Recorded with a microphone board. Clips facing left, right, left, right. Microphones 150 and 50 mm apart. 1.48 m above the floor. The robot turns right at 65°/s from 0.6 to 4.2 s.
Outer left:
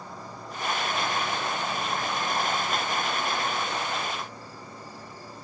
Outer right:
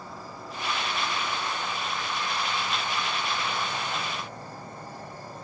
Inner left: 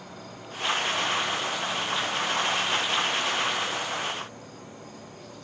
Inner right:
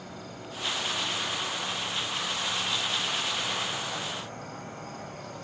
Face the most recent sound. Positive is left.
turn(degrees=-125)